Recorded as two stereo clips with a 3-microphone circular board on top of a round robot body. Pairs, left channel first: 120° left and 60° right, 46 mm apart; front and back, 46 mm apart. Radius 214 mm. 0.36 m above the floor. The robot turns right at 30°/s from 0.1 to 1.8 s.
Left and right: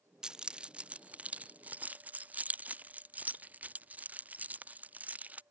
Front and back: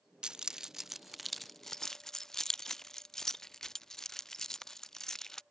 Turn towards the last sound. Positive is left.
turn(degrees=-70)